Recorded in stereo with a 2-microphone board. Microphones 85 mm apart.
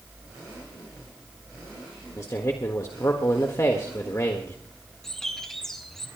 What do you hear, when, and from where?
2.2 s a man speaking: 35° left (ahead or behind), 1.4 m
5.0 s a bird: 5° left (ahead or behind), 3 m